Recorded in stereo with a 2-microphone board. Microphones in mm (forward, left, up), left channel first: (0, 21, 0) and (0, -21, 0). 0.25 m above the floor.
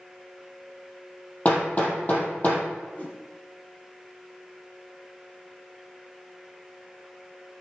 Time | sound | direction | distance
1.4 | hammering | 35° left (ahead or behind) | 3.5 m
3.0 | a whoosh | 35° left (ahead or behind) | 2.0 m